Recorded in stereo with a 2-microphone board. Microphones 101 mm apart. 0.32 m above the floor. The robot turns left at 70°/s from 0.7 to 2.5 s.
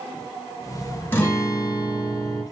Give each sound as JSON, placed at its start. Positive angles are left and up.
{"t": 1.1, "sound": "a guitar", "azimuth_deg": 135, "distance_m": 1.6}